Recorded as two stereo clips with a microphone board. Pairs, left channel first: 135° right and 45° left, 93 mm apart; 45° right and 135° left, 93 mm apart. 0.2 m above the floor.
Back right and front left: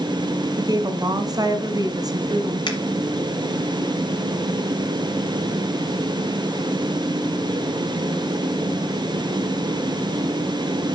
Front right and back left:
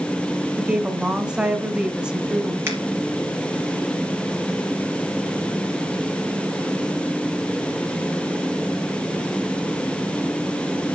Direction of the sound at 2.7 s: 165° right.